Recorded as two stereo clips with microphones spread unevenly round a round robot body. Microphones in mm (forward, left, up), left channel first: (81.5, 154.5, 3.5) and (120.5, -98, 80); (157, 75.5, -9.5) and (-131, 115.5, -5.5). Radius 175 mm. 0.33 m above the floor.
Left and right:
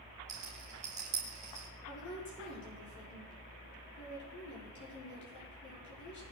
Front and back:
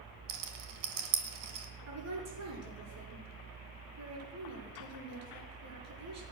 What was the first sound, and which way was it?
A rattle, 155° right.